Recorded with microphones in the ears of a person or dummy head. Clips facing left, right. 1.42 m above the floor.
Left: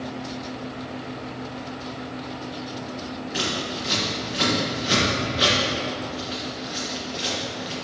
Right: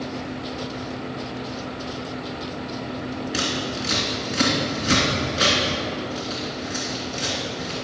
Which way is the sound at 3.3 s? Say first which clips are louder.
Even; 60° right (ahead or behind).